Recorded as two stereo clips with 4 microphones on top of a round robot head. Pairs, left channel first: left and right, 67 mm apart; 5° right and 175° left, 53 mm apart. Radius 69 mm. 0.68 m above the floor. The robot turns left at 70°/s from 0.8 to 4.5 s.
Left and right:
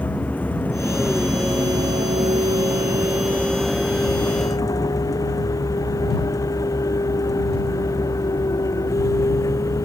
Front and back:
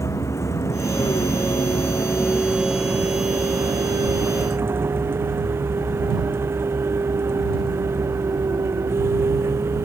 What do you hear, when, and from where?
0.0 s a vehicle: 20° left; by 9.8 s 130° left